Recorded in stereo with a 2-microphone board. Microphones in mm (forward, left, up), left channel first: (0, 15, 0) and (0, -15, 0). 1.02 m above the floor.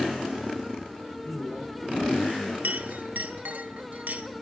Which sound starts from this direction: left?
A man speaking, at 1.2 s.